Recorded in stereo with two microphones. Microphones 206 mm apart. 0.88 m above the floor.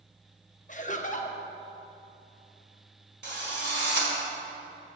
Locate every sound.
0.7 s laughter: 40° left (ahead or behind), 0.7 m
3.2 s a drill: 60° right (ahead or behind), 1.6 m